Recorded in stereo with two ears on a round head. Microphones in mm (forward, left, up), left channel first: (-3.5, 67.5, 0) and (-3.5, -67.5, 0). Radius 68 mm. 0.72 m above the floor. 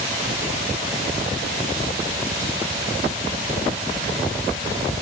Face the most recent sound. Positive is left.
No sound to turn to.